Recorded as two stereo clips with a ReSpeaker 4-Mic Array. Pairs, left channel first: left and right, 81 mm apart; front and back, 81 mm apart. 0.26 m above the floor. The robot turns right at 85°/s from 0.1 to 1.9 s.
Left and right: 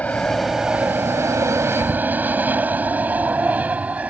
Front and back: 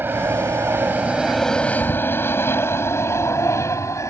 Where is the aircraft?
145° left; by 4.1 s 25° right.